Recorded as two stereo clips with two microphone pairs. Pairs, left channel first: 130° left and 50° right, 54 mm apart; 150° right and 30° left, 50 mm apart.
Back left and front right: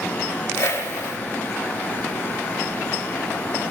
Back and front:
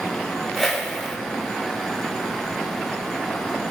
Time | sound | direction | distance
0.6 | a whoosh | 120° left | 4.5 m